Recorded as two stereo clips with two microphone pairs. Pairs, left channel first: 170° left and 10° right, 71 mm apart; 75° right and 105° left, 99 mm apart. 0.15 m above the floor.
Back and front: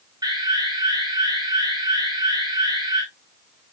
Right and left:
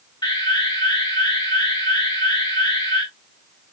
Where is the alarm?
35° right, 6.5 m.